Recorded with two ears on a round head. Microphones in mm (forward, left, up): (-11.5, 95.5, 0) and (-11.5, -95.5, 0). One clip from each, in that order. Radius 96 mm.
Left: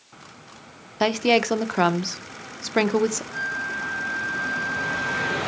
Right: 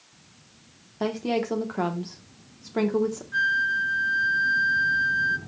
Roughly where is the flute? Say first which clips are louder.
Right 5 dB; right.